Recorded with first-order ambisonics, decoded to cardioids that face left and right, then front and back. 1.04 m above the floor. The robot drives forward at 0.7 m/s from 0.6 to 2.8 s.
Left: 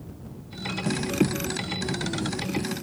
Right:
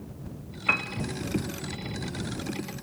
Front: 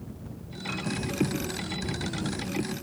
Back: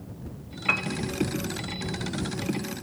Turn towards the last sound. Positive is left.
turn(degrees=-155)